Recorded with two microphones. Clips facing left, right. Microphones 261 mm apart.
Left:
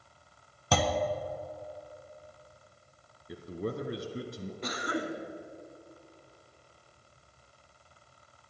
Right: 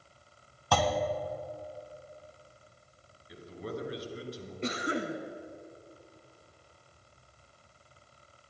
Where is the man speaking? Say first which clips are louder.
Left 4 dB; 55° left (ahead or behind), 1.8 m.